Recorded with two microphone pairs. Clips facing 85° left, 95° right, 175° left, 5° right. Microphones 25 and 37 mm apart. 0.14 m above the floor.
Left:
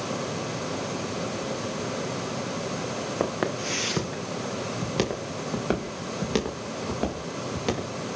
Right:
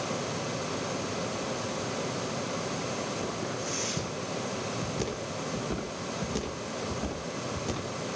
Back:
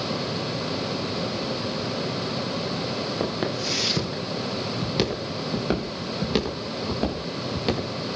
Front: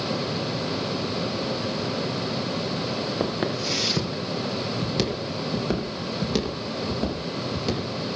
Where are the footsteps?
75° left, 4 m; by 7.9 s 120° left, 6.5 m.